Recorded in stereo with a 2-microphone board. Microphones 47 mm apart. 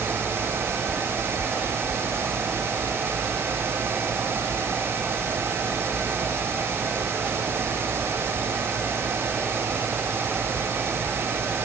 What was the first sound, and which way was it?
Only background noise.